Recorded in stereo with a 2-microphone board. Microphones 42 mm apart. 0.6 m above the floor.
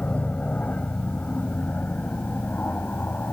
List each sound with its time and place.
0.0 s an aircraft: 35° left (ahead or behind); by 3.3 s 50° left (ahead or behind)